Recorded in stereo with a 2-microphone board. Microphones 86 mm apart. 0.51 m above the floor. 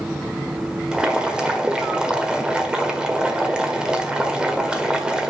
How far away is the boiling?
About 1.5 m.